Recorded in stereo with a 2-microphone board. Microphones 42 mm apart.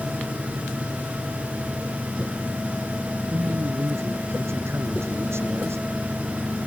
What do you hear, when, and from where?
3.3 s a man speaking: 80° right